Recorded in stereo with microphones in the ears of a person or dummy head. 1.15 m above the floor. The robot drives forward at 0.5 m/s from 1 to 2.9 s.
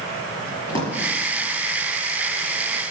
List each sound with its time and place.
0.7 s a drawer: 20° left (ahead or behind), 6 m